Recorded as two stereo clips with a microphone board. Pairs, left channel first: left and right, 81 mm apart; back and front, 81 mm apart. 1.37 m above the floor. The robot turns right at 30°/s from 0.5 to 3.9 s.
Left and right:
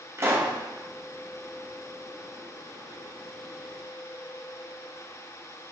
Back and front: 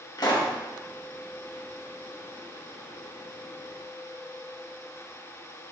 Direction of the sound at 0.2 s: 145° right.